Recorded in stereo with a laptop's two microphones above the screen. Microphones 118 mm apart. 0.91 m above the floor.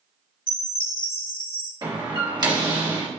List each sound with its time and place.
0.5 s a chime: 45° left (ahead or behind), 2.5 m
1.8 s a door slam: 40° right (ahead or behind), 1.6 m